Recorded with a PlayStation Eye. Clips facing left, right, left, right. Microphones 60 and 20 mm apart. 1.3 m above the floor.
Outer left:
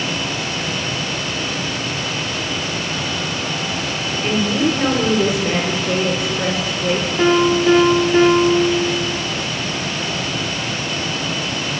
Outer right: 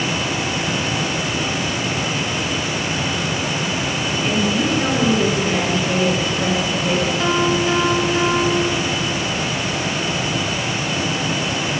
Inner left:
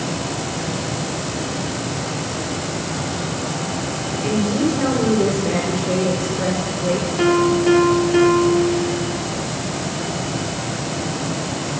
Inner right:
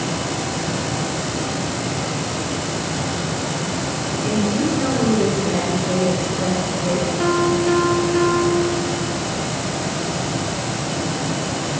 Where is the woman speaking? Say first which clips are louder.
Outer left 2 dB, inner left 1 dB; 30° left (ahead or behind), 4.5 m.